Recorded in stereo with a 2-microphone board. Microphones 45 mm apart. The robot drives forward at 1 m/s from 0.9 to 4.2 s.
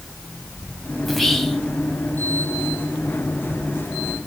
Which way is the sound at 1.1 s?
5° left (ahead or behind).